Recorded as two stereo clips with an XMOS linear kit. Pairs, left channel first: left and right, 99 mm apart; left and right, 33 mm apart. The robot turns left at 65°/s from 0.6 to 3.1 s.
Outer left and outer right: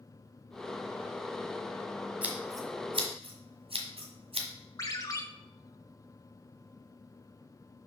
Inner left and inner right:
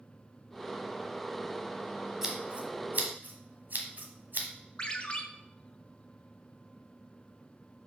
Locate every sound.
2.2 s scissors: 10° right (ahead or behind), 1.4 m; by 4.5 s 65° right (ahead or behind), 1.4 m
4.8 s a ringtone: 35° left (ahead or behind), 1.0 m